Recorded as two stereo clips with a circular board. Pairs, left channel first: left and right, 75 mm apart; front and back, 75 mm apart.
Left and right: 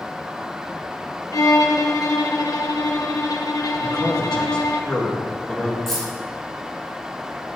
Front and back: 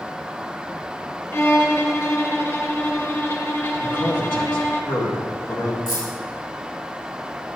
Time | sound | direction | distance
1.3 | a violin | 55° left | 0.7 m
3.8 | a man speaking | 10° left | 1.9 m
5.9 | keys jangling | 5° left | 3.5 m